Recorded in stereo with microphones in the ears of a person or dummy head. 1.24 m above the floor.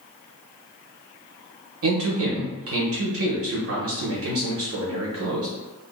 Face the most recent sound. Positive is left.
turn(degrees=-70)  # may be behind; listen again after turning